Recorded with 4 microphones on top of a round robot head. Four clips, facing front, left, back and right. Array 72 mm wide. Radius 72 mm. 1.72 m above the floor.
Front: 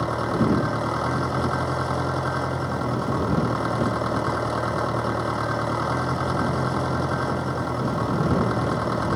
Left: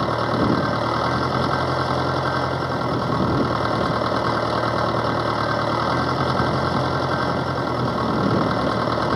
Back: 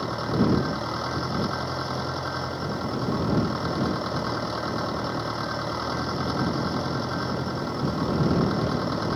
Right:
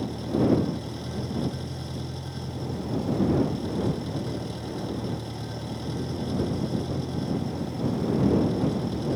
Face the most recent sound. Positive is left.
turn(degrees=75)